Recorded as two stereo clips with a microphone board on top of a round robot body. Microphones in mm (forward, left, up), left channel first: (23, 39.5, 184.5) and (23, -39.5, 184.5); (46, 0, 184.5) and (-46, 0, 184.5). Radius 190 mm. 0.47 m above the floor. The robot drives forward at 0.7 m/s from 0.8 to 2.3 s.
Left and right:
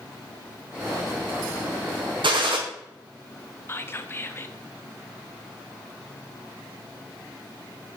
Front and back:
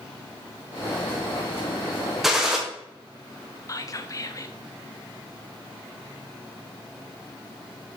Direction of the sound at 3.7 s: 40° left.